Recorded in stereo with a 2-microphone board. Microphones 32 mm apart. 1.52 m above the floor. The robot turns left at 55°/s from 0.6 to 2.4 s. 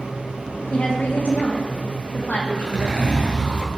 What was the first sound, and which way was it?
A woman speaking, 150° left.